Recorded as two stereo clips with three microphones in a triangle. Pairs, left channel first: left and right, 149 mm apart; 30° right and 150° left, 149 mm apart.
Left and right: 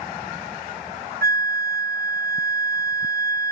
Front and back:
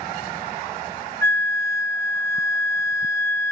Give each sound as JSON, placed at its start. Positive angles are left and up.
{"t": 1.2, "sound": "a flute", "azimuth_deg": -105, "distance_m": 0.7}